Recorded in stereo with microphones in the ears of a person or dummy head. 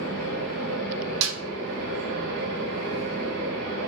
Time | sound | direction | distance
0.0 | a fan | 65° right (ahead or behind) | 1.4 m
1.2 | a snare drum | 75° right (ahead or behind) | 0.6 m